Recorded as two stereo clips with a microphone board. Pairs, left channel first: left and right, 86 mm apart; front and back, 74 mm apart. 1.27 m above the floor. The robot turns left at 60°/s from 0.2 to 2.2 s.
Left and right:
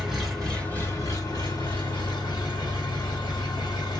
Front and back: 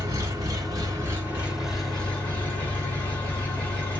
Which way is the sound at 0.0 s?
175° right.